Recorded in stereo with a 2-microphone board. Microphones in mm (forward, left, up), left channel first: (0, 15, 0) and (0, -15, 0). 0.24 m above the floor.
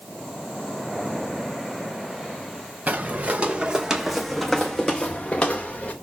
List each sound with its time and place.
2.9 s footsteps: 55° right (ahead or behind), 1.3 m; by 5.9 s 45° left (ahead or behind), 1.8 m